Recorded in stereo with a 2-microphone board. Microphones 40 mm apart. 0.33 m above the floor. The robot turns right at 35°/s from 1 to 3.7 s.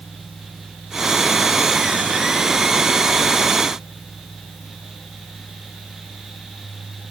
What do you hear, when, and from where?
Only background noise.